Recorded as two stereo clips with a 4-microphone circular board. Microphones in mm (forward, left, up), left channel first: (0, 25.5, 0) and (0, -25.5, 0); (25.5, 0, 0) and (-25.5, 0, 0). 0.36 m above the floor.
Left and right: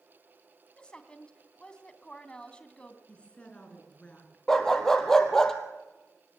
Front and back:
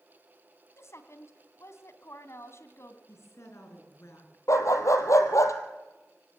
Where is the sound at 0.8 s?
20° left, 2.5 m.